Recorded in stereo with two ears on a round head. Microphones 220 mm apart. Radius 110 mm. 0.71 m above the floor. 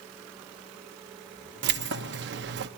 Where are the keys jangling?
45° right (ahead or behind), 0.7 m.